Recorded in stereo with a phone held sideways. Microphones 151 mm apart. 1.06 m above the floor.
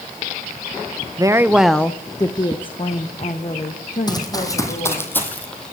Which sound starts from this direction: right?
A woman speaking, at 1.2 s.